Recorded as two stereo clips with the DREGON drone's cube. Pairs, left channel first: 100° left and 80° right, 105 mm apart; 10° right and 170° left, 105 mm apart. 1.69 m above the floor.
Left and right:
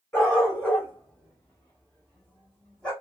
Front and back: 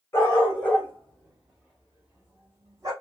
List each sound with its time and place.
0.1 s a dog barking: 40° left, 1.6 m; by 2.9 s 175° left, 1.5 m